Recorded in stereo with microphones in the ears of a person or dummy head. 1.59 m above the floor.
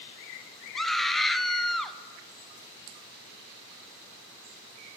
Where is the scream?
10° left (ahead or behind), 0.7 m.